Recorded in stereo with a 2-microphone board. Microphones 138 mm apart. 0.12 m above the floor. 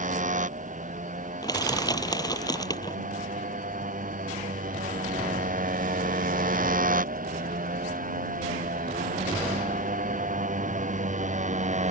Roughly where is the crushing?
Left.